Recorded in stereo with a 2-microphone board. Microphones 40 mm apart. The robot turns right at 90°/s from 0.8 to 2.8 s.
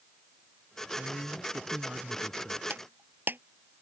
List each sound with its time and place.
1.0 s a man speaking: 120° right; by 2.6 s 30° left
2.7 s breaking glass: 50° right (ahead or behind); by 3.4 s 55° right (ahead or behind)